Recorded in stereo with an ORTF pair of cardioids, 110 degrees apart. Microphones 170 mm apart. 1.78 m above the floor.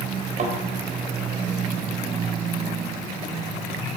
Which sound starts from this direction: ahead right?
A thud, at 0.4 s.